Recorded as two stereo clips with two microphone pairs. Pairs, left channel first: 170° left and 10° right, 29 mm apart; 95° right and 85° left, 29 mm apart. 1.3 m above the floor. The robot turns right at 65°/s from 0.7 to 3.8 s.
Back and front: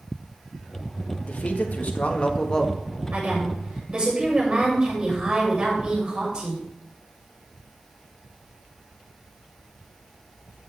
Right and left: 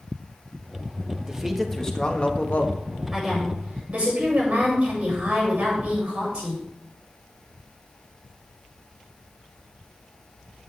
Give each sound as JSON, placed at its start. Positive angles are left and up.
{"t": 1.3, "sound": "a man speaking", "azimuth_deg": 150, "distance_m": 1.6}
{"t": 3.1, "sound": "a woman speaking", "azimuth_deg": 5, "distance_m": 7.0}